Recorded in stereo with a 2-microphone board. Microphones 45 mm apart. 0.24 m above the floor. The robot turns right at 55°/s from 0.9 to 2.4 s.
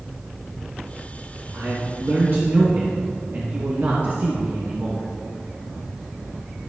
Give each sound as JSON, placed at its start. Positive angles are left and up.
{"t": 1.5, "sound": "a man speaking", "azimuth_deg": -110, "distance_m": 1.9}